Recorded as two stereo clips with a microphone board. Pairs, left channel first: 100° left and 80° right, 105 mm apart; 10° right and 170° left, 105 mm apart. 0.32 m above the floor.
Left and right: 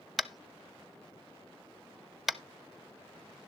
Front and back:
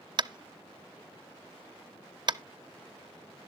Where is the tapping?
170° right, 0.5 m.